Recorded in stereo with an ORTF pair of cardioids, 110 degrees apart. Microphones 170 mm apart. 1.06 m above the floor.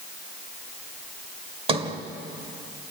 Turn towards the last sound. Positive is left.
turn(degrees=-35)